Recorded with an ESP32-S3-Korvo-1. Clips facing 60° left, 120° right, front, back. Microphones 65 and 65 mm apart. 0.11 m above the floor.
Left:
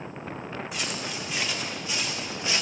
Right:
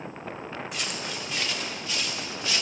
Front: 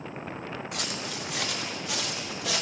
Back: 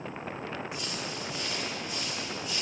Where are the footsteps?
25° right, 3.5 m; by 2.6 s 10° right, 3.5 m.